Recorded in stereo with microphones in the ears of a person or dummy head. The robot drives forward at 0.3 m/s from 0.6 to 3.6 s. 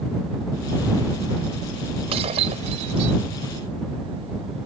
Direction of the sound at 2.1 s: 35° right (ahead or behind).